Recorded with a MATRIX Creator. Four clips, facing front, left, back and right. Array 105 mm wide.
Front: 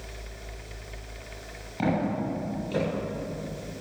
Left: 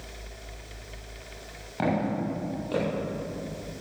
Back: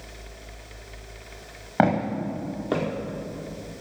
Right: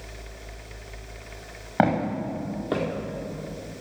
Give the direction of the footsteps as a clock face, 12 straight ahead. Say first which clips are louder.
Right 4 dB, back 4 dB; 5 o'clock.